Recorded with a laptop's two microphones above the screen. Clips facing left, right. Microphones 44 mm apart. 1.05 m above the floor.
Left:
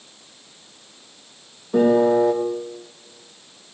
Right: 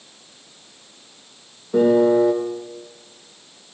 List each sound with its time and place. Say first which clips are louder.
1.7 s a piano: right 1 dB; centre (ahead or behind), 0.8 m